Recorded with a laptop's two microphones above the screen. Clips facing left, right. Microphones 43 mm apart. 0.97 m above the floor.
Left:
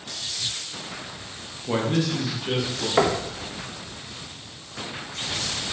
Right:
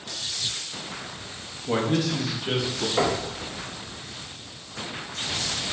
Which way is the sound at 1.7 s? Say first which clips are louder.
Even; 10° left (ahead or behind).